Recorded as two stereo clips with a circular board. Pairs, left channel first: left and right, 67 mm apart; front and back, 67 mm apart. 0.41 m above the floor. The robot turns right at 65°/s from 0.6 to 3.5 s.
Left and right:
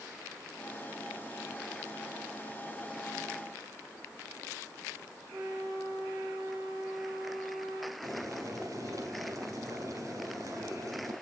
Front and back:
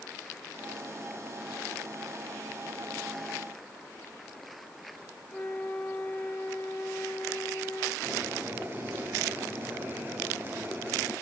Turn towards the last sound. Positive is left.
turn(degrees=-125)